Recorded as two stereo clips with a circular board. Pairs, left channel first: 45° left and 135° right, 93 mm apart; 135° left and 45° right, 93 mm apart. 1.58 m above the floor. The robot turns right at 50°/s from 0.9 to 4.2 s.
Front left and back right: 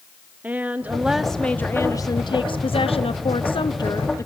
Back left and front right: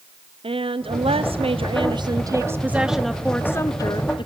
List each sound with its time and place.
0.4 s a woman speaking: 60° right, 0.6 m; by 4.3 s 105° left, 0.6 m